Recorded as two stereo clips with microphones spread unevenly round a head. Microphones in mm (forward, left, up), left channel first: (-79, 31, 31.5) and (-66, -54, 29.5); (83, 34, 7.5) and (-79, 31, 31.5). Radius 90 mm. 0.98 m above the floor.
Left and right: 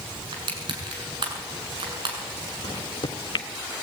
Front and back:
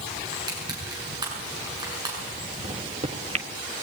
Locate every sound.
0.3 s crushing: 110° right, 6.5 m
2.6 s a microwave: 130° left, 1.6 m